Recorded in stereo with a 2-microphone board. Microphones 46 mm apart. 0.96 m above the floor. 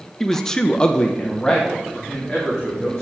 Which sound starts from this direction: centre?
A man speaking, at 0.2 s.